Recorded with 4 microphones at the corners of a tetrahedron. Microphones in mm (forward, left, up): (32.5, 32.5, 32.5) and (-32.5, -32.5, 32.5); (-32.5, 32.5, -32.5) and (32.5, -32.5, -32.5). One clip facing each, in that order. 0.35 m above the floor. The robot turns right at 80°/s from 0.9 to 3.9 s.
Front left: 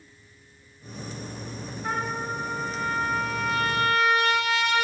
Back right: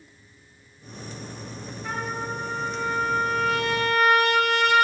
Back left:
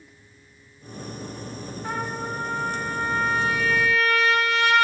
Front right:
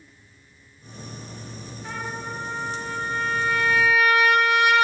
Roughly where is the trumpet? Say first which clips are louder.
Front left 1 dB, back left 3 dB; left.